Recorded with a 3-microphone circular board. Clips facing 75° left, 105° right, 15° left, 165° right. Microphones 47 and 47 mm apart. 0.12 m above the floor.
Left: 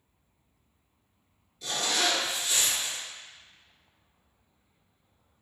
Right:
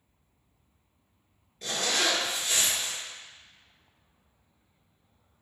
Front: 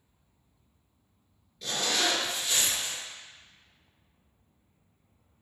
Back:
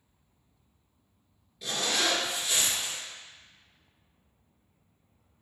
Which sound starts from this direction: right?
A zipper, at 1.6 s.